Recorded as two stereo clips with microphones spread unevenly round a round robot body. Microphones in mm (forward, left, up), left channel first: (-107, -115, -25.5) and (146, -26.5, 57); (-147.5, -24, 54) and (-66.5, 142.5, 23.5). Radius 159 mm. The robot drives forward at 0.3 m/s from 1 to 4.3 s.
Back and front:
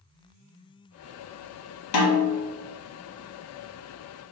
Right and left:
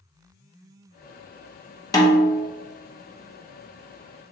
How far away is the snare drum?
About 0.7 m.